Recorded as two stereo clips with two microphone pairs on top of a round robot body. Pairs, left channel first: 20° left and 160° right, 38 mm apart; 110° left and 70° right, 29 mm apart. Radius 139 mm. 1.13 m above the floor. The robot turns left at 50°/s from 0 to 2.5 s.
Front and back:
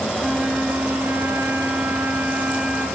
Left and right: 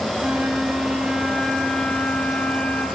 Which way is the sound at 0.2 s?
95° right.